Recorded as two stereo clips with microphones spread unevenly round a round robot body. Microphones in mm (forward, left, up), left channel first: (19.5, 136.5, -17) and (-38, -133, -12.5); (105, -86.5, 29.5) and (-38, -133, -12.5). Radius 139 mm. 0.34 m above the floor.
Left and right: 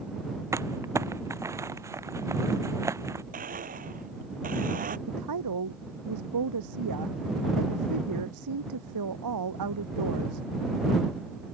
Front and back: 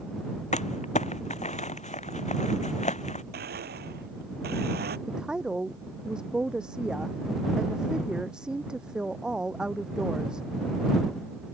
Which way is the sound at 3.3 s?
165° right.